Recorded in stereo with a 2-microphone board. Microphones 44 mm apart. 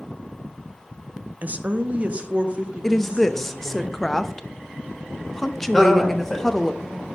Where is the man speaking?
Centre (ahead or behind), 2.5 m.